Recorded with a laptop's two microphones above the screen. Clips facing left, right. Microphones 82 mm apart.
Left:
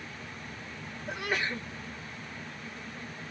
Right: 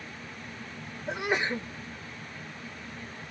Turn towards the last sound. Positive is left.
turn(degrees=-25)  # may be behind; listen again after turning